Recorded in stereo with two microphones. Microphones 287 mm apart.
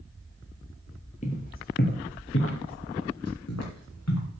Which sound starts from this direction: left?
Footsteps, at 1.2 s.